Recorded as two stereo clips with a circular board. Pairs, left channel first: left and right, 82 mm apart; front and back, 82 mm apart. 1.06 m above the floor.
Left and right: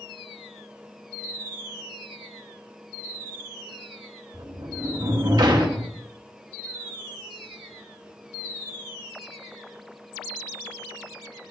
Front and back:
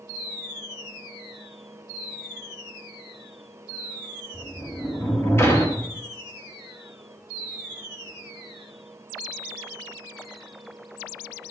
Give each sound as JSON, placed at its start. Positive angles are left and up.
{"t": 4.3, "sound": "a sliding door", "azimuth_deg": -60, "distance_m": 1.7}